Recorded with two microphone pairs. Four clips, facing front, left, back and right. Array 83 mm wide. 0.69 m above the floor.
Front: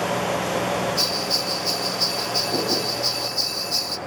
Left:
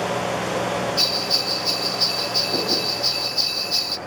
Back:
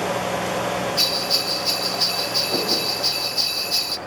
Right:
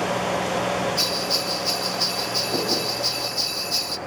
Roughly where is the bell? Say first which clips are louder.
Even, even; behind.